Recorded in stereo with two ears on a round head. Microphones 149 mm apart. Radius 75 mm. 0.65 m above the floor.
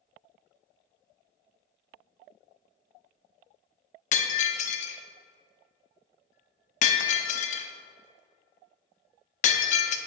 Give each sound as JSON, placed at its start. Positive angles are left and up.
{"t": 4.1, "sound": "breaking glass", "side_deg": 45, "distance_m": 0.5}